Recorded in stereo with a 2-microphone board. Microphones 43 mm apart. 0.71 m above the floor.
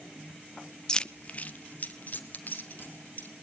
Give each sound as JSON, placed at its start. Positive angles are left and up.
{"t": 0.9, "sound": "keys jangling", "side_deg": 15, "distance_m": 0.6}